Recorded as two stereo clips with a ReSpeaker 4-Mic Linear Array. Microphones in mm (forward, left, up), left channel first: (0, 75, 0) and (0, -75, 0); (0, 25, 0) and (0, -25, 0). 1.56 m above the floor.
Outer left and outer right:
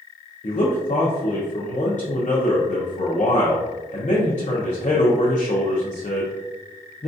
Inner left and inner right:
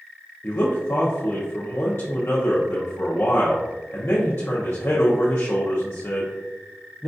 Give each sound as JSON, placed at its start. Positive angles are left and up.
{"t": 0.4, "sound": "a man speaking", "side_deg": 55, "distance_m": 0.6}